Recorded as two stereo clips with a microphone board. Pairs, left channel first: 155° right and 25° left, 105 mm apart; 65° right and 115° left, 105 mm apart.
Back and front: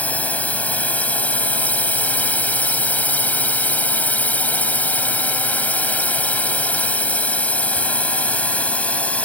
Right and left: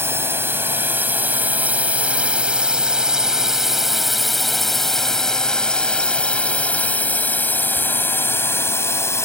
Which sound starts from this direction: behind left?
A drone, at 0.0 s.